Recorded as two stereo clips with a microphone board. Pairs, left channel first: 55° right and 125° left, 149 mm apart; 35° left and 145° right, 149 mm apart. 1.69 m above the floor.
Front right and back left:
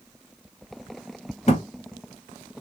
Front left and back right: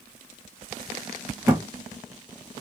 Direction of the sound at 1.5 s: 85° right.